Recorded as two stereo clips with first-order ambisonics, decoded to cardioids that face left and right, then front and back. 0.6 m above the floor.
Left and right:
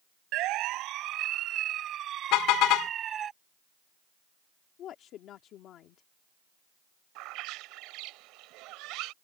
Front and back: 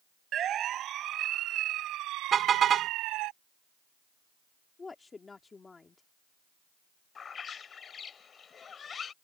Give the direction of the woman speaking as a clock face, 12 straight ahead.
10 o'clock.